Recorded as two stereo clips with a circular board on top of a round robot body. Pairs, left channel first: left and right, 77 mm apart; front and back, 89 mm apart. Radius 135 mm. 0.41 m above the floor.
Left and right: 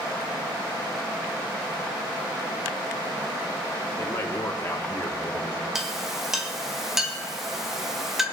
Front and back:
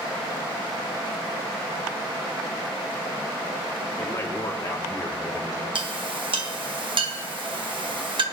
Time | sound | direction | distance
4.0 | a man speaking | 45° left | 1.5 m
5.8 | a clink | 175° right | 1.5 m